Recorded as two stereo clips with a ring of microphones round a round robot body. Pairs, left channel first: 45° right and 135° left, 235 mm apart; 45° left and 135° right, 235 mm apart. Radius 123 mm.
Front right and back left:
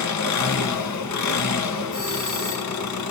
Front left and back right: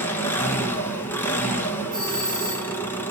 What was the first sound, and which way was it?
An engine running, 35° right.